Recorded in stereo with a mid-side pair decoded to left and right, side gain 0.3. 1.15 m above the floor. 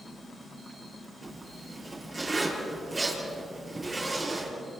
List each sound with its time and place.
1.2 s a zipper: 35° right, 9.5 m